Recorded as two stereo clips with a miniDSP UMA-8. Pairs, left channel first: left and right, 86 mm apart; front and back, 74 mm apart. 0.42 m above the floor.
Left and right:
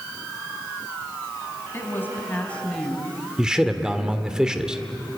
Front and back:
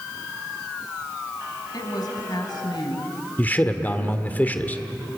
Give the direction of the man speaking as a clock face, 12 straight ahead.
1 o'clock.